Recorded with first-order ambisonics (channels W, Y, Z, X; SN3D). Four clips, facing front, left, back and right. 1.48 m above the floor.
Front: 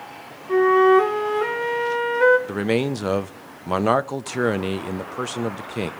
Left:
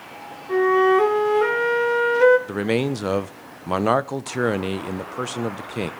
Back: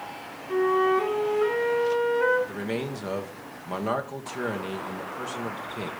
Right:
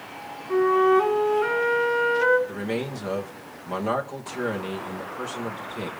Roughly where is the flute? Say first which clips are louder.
Left 2 dB, front 8 dB; ahead left.